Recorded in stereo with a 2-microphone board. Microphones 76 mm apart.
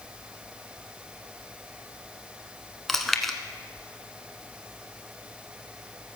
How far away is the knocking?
No knocking in this recording.